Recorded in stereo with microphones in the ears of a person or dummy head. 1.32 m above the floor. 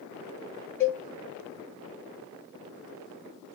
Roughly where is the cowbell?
Centre.